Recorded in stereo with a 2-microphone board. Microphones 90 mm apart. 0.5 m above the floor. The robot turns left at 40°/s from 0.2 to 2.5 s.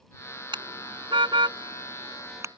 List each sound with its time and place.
0.5 s a car horn: 70° right (ahead or behind); by 2.5 s 35° right (ahead or behind)